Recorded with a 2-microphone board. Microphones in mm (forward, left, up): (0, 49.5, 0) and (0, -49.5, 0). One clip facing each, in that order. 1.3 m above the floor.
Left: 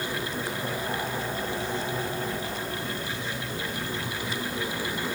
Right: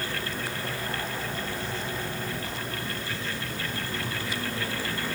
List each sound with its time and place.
Only background noise.